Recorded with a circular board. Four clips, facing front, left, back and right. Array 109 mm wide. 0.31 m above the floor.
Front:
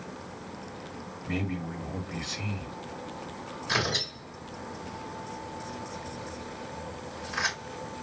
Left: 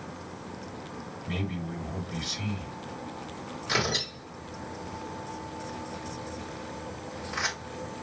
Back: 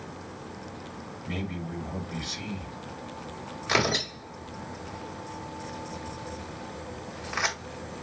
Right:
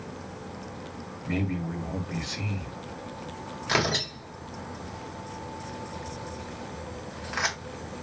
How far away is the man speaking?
About 1.5 m.